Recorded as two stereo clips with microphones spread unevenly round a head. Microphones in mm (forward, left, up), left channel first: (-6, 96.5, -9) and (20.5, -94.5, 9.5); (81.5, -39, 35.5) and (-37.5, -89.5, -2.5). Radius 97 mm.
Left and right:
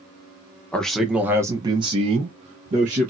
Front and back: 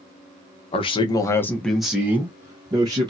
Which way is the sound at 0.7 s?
35° left.